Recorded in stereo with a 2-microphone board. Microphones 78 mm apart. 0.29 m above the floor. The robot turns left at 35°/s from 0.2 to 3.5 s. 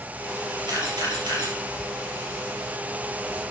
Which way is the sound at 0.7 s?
70° right (ahead or behind).